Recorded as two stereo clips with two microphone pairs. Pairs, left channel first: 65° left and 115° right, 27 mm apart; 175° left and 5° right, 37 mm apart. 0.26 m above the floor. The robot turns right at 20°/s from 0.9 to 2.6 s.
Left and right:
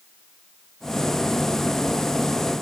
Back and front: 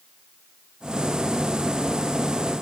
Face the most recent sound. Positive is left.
No sound to turn to.